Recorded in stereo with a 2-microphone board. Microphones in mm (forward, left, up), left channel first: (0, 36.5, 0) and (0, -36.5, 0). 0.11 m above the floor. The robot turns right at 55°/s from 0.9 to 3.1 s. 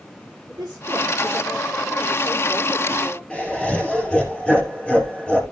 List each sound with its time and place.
0.5 s a woman speaking: 70° right, 8.5 m; by 3.2 s 50° left, 8.5 m
3.3 s laughter: 10° left (ahead or behind), 2 m